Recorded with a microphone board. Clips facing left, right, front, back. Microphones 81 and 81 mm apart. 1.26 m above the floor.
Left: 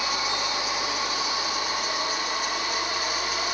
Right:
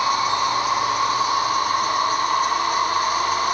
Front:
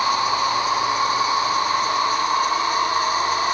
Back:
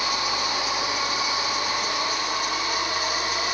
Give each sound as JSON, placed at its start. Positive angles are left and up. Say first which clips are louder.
{"t": 0.0, "sound": "an insect", "louder": "right 9 dB, front 7 dB", "azimuth_deg": -50}